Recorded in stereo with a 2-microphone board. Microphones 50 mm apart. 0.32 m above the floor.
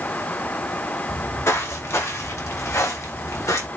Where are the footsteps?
55° left (ahead or behind), 2.5 m; by 3.7 s 75° left (ahead or behind), 3.5 m.